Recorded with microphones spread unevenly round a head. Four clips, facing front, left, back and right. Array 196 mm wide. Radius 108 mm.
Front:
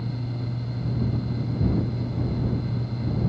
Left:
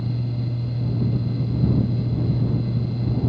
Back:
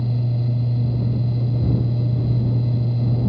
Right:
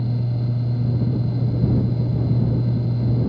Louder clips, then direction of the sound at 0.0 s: Right 2 dB, back 7 dB; 150° right.